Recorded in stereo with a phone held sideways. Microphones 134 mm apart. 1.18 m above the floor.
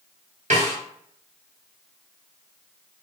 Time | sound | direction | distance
0.5 | a snare drum | 60° right (ahead or behind) | 1.3 m